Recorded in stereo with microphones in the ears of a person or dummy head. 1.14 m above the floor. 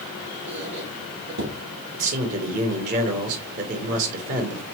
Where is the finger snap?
I don't hear a finger snap.